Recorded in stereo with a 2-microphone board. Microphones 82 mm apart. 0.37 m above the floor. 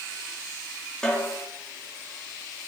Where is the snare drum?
10° left (ahead or behind), 4 m.